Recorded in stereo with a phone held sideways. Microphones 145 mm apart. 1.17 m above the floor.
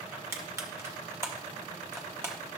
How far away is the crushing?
About 1.1 m.